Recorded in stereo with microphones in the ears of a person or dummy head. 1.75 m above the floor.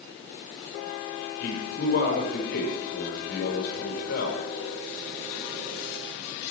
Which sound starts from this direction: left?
A man speaking, at 1.4 s.